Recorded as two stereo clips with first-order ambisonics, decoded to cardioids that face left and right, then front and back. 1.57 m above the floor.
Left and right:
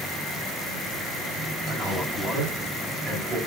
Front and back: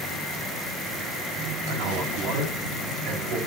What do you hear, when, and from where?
1.7 s a man speaking: 165° right, 10 m